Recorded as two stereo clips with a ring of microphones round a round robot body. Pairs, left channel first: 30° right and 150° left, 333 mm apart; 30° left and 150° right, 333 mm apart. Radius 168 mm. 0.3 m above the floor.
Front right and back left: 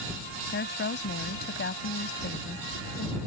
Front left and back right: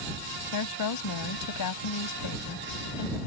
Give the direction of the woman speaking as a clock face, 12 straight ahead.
11 o'clock.